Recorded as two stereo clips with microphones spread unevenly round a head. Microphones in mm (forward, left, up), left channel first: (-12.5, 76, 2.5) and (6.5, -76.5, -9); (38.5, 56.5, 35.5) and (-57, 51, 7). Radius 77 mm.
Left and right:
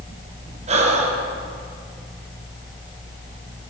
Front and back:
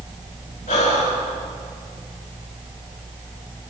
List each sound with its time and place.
0.7 s breathing: 35° right, 5 m